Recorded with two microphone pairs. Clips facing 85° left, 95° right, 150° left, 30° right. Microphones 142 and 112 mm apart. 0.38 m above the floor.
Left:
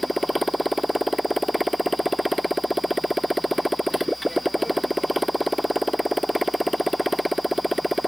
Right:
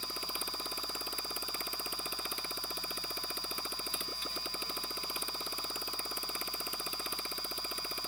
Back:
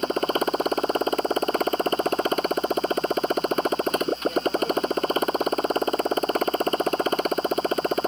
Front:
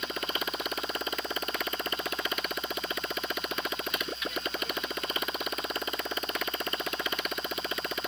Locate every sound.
0.0 s a motorcycle: 100° left